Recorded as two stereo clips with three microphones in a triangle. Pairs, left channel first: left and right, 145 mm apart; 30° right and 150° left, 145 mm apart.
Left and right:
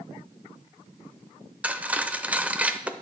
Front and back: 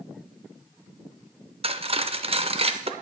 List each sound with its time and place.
1.6 s cutlery clinking: 170° right, 0.5 m